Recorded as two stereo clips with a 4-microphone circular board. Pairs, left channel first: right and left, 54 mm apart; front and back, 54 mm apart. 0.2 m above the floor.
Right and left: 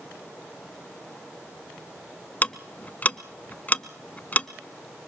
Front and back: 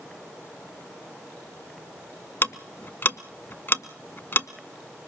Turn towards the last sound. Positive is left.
turn(degrees=-35)